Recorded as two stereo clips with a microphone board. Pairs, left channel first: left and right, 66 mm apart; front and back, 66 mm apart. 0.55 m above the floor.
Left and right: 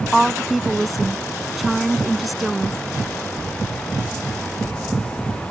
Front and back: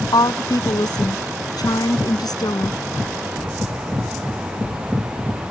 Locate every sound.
0.1 s a woman speaking: straight ahead